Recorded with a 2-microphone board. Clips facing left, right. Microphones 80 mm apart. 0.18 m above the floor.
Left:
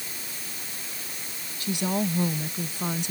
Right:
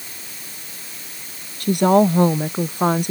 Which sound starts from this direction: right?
A woman speaking, at 1.6 s.